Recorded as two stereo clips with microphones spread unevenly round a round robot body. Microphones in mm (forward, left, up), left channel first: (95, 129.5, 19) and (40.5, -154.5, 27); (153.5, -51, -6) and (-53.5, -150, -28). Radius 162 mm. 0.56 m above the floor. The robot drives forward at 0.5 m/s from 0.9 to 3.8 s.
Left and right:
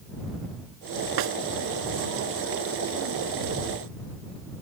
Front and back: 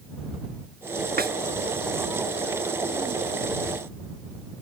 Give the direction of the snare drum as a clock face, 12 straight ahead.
3 o'clock.